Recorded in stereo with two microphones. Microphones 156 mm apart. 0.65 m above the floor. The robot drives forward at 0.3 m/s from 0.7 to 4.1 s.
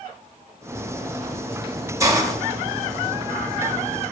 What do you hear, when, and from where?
2.0 s a hiss: 20° right (ahead or behind), 0.7 m